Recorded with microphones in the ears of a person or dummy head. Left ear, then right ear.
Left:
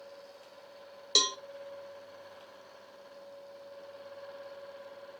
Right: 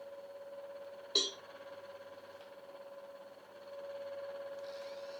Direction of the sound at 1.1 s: 70° left (ahead or behind).